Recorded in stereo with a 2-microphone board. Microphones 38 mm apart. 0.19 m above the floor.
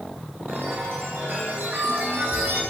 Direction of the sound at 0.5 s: 80° right.